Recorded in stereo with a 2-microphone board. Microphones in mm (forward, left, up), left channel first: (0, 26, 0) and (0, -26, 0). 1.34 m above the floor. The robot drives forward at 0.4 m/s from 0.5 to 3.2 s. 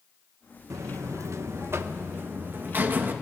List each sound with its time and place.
0.7 s a buzzer: 75° right (ahead or behind), 0.8 m; by 3.1 s 35° right (ahead or behind), 1.3 m